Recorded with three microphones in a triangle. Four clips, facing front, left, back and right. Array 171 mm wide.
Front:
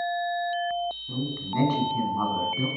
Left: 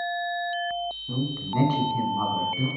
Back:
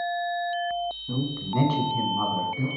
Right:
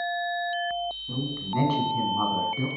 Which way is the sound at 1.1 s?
165° left.